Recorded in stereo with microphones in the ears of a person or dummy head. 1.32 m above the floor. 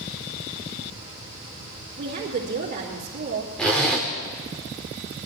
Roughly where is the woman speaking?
Right.